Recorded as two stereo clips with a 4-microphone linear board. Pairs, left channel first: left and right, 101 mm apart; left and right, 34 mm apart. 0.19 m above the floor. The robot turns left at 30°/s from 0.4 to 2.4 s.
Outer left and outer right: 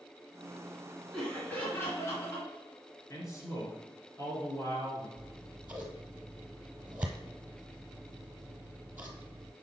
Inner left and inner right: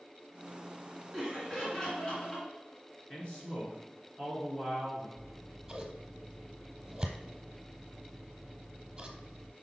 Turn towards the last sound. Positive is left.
turn(degrees=-15)  # may be behind; listen again after turning